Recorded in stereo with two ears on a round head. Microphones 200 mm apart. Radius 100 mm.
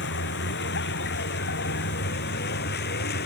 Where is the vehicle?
60° left (ahead or behind); by 3.3 s 50° left (ahead or behind).